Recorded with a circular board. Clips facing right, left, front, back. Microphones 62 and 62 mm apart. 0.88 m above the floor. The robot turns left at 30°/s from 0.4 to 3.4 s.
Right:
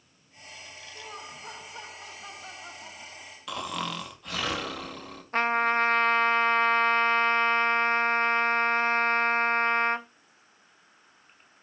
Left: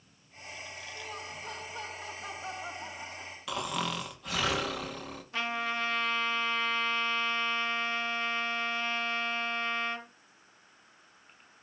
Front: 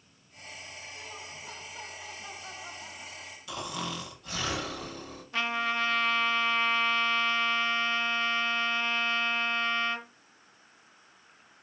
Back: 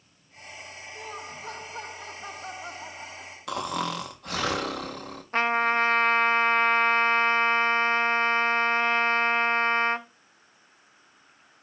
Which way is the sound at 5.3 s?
135° right.